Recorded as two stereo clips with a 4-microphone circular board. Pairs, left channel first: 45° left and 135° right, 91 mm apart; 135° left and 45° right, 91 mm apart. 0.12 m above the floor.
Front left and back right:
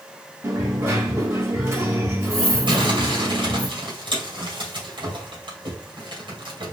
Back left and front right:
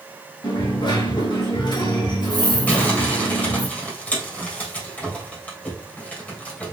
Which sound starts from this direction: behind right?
Crumpling, at 2.7 s.